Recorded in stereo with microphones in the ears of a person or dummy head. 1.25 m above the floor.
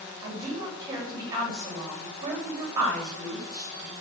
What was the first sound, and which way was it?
A woman speaking, 15° right (ahead or behind).